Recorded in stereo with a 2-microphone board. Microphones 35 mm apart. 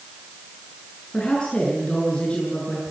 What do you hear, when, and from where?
1.1 s a woman speaking: 30° left (ahead or behind), 7 m; by 2.9 s 35° left (ahead or behind), 8 m